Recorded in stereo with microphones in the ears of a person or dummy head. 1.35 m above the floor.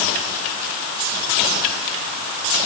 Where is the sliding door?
I don't hear a sliding door.